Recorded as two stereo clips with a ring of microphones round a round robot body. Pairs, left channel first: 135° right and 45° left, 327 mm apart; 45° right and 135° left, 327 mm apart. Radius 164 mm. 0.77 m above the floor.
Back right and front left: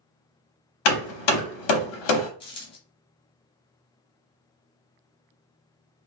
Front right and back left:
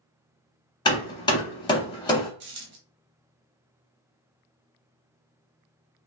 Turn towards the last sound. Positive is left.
turn(degrees=160)